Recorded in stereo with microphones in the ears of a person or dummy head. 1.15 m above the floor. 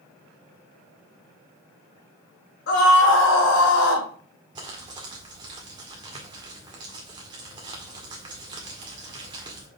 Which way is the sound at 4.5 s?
20° right (ahead or behind).